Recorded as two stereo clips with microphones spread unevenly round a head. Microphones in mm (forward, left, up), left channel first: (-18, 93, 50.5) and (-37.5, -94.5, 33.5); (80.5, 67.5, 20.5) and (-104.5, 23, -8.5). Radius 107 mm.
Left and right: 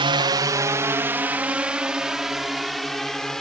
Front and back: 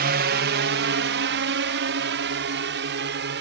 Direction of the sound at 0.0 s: 150° right.